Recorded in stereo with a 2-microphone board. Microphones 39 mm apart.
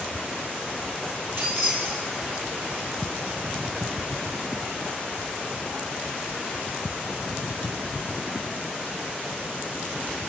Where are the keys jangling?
75° right (ahead or behind), 4 m; by 2.4 s 80° right, 4.5 m.